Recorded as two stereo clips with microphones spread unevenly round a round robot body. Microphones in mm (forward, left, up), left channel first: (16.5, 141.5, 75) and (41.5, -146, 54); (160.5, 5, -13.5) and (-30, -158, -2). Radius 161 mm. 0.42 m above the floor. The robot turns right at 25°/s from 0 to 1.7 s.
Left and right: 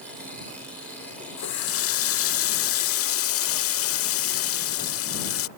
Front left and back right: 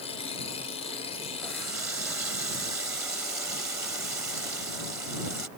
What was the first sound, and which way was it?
A running tap, 130° left.